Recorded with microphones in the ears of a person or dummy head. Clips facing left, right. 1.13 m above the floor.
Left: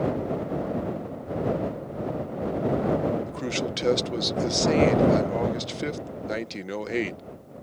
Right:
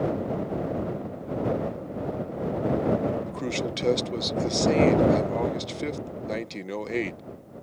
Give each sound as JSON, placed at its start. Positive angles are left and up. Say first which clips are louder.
{"t": 3.3, "sound": "a man speaking", "louder": "even", "side_deg": 5}